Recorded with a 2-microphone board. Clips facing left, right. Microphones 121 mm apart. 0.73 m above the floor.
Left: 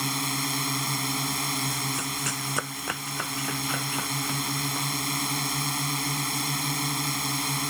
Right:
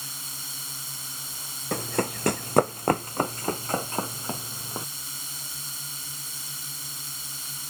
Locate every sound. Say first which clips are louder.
0.0 s a drone: left 16 dB; 75° left (ahead or behind)
1.7 s running footsteps: right 4 dB; 65° right (ahead or behind); by 4.9 s 25° right (ahead or behind)